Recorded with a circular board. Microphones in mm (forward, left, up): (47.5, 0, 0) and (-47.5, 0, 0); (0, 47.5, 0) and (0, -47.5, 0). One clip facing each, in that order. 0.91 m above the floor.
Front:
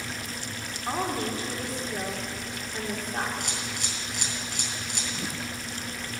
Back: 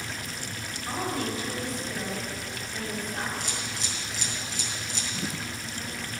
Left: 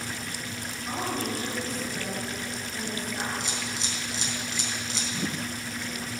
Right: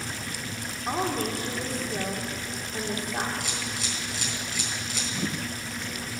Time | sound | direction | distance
0.9 | a woman speaking | 60° right | 2 m
3.4 | a camera shutter | 30° left | 4 m